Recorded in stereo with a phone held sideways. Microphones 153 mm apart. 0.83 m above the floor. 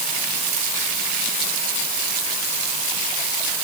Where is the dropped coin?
I don't hear a dropped coin.